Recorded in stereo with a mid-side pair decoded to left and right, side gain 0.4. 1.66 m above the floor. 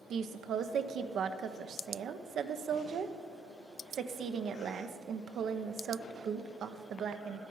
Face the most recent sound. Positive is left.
turn(degrees=-65)